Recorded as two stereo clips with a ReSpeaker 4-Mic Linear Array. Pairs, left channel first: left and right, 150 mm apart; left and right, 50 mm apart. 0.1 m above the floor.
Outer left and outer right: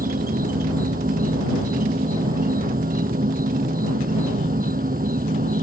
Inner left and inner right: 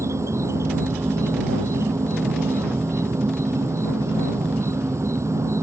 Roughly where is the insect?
Right.